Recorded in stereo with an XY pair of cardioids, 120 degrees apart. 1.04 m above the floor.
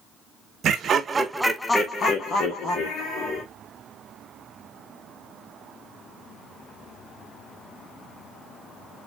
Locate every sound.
0.6 s laughter: 55° right, 1.0 m; by 3.4 s 70° left, 2 m